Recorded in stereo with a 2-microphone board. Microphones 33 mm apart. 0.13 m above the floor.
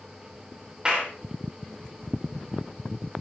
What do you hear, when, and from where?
0.8 s a clap: 30° right (ahead or behind), 9.5 m